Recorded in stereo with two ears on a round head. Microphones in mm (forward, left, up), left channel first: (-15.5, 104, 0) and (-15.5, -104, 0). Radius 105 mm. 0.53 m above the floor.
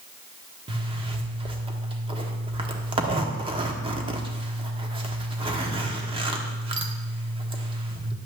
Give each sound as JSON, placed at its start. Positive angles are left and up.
{"t": 0.7, "sound": "a zipper", "side_deg": -25, "distance_m": 1.3}